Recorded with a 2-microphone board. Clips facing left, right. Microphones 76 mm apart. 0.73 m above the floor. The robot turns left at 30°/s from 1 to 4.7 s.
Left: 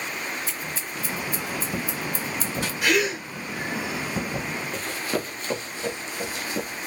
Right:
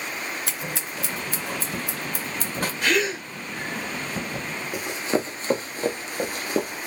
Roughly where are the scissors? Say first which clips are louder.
Right 1 dB; right.